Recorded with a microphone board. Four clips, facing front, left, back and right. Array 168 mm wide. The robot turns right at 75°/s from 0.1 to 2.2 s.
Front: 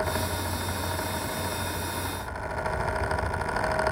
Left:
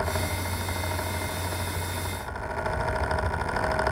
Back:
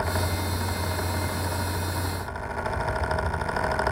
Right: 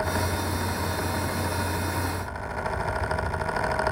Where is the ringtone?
I don't hear a ringtone.